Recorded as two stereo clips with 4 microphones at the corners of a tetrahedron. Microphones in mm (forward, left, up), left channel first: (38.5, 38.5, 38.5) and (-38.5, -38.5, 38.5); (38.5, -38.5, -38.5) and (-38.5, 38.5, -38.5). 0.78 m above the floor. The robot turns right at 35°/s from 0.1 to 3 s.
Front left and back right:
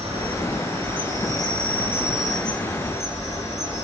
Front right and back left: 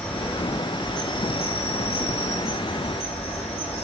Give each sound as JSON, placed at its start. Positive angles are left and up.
{"t": 0.0, "sound": "an insect", "azimuth_deg": -120, "distance_m": 1.1}